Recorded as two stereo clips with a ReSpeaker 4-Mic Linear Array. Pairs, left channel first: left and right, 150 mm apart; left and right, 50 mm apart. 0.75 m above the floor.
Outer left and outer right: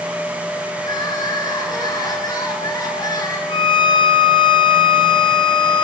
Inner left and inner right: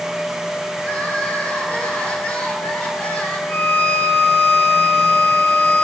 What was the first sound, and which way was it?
Crying, 25° left (ahead or behind).